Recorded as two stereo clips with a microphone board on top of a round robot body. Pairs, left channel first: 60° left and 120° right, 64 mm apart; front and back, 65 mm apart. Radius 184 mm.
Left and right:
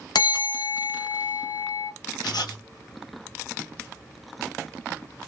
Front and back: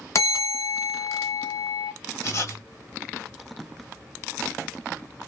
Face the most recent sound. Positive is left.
turn(degrees=45)